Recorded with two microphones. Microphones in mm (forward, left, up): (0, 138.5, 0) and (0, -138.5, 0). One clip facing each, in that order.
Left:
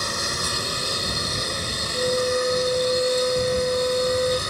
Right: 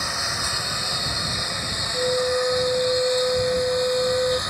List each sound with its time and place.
0.0 s a lawn mower: 40° left (ahead or behind); by 4.5 s 35° left (ahead or behind)
1.9 s a flute: 5° right (ahead or behind)